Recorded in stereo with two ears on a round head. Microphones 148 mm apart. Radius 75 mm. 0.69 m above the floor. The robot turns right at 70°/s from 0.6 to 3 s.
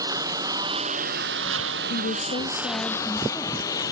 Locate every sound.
0.0 s a lawn mower: 20° right (ahead or behind); by 3.9 s 20° left (ahead or behind)
1.9 s a woman speaking: 100° left; by 3.7 s 175° left